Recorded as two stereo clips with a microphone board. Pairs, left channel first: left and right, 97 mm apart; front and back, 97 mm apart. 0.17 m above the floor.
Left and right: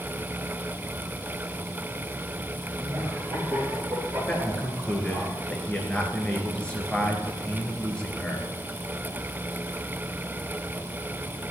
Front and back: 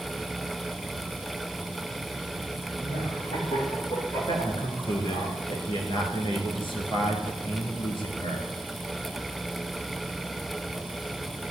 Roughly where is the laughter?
Ahead.